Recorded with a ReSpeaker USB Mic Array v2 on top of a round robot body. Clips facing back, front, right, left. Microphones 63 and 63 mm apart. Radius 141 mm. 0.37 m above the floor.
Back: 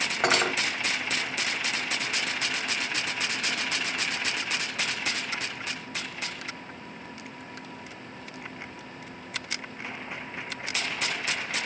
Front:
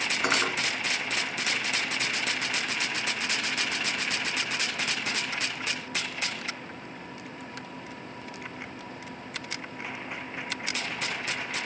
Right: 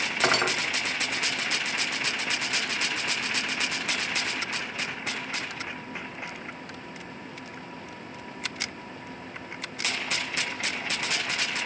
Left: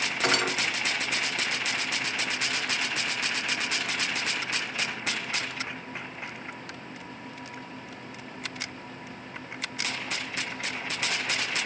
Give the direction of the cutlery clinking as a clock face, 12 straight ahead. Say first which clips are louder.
Back 3 dB, right 2 dB; 5 o'clock.